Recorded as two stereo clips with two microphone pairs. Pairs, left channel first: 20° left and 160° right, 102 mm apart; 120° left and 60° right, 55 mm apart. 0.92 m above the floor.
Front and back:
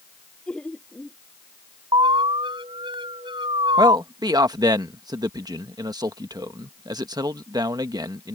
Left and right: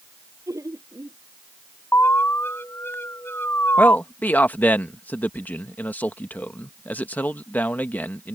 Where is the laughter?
60° right.